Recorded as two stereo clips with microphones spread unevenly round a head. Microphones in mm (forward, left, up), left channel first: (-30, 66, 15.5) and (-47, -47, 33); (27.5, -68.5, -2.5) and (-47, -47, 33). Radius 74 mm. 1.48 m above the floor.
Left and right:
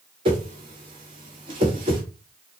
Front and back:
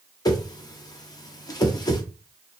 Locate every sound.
0.2 s a whoosh: 40° right, 1.0 m